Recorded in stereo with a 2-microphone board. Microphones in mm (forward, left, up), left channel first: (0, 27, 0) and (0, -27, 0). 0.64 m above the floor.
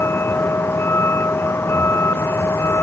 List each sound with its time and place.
0.0 s a vehicle: 50° left (ahead or behind)